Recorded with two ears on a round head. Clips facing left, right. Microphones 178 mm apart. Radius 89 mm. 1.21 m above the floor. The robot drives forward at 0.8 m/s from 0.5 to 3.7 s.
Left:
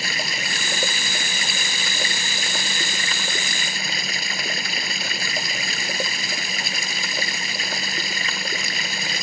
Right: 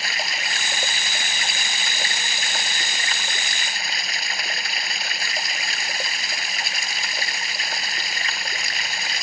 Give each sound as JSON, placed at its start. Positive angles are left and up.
{"t": 0.0, "sound": "running water", "side_deg": 85}